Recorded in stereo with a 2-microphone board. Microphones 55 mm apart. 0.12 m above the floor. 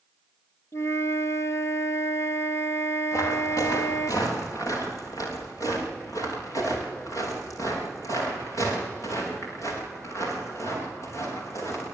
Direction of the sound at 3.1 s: 80° left.